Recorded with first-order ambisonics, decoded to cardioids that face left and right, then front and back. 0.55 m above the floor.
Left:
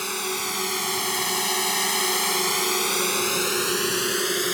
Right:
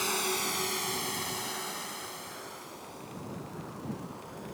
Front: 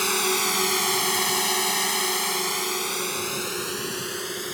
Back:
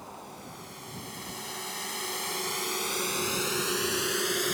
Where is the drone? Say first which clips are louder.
Left 3 dB, front 21 dB; 10° left; by 4.5 s 105° left.